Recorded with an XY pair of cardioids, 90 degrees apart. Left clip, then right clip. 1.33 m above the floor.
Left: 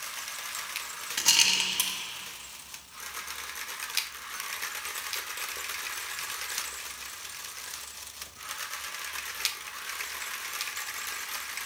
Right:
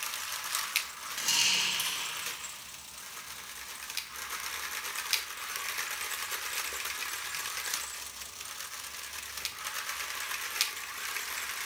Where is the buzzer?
I don't hear a buzzer.